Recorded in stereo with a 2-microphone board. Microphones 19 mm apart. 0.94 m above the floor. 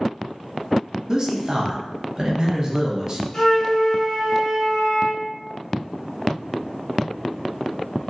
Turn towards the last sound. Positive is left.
turn(degrees=30)  # may be behind; listen again after turning